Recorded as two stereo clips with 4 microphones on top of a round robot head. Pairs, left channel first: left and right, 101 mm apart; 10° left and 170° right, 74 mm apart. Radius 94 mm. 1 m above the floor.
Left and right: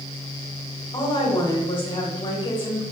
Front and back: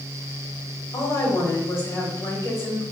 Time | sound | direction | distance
0.9 | a woman speaking | 50° left | 2.5 m